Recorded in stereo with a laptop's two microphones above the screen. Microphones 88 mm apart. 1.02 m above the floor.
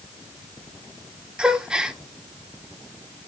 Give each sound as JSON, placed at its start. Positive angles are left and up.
{"t": 1.4, "sound": "a gasp", "side_deg": -10, "distance_m": 1.2}